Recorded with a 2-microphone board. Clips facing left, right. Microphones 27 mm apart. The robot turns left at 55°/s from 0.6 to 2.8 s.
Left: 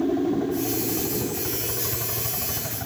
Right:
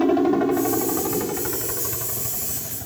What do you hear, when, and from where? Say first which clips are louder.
0.0 s a helicopter: right 5 dB; 70° right (ahead or behind); by 2.9 s 45° left (ahead or behind)